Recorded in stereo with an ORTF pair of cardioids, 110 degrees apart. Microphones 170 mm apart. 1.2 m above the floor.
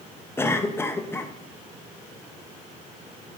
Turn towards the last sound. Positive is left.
turn(degrees=15)